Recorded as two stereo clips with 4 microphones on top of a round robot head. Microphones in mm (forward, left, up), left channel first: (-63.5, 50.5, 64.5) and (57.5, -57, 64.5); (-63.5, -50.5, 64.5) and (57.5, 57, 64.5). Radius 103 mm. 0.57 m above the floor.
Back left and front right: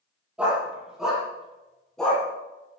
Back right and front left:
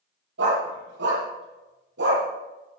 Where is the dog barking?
45° left, 8.5 m; by 2.2 s 55° left, 8.5 m.